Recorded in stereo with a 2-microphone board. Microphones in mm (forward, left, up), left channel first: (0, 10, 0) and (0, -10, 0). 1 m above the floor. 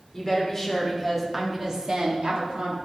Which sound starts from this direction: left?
A woman speaking, at 0.1 s.